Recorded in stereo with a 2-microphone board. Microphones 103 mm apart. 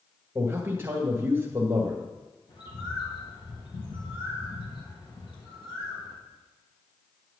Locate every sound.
0.3 s a man speaking: 25° right (ahead or behind), 1.8 m
2.5 s a bird: 50° left (ahead or behind), 3 m